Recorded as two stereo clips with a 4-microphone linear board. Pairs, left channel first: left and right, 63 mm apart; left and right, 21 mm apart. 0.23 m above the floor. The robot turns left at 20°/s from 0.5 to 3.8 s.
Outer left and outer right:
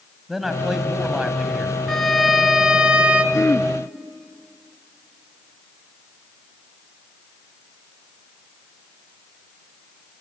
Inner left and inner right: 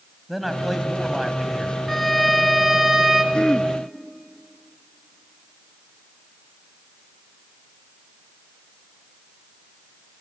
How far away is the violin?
About 1.0 m.